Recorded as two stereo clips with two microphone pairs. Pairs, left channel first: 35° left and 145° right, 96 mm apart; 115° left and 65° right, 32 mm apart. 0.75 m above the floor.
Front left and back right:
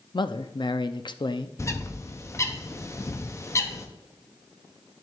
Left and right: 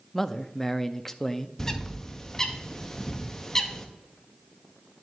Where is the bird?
60° left, 0.8 m.